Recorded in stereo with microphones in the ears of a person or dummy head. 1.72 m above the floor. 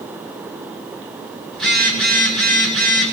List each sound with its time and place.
1.5 s a phone buzzing: centre (ahead or behind), 6 m